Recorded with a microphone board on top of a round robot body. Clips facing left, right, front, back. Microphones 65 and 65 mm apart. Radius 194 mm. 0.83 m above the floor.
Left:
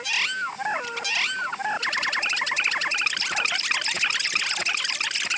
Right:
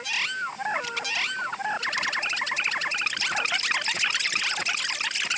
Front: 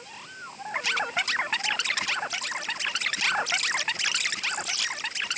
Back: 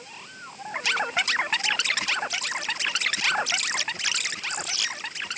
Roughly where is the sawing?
No sawing in this recording.